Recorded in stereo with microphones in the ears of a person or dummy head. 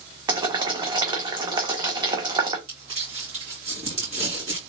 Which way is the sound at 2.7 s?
35° right (ahead or behind).